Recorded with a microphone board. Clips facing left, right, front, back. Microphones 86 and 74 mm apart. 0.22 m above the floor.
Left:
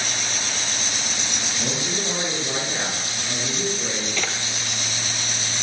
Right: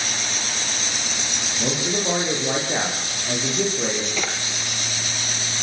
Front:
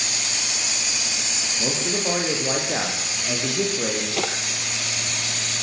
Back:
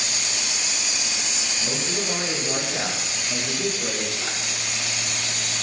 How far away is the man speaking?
About 9.5 m.